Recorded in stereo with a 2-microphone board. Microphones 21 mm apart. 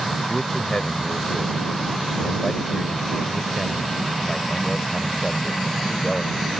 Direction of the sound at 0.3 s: 20° left (ahead or behind).